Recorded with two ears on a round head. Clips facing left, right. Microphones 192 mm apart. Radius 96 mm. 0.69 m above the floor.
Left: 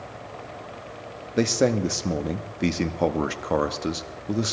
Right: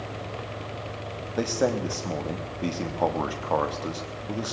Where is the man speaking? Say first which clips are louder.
Left 4 dB; 25° left (ahead or behind), 1.0 m.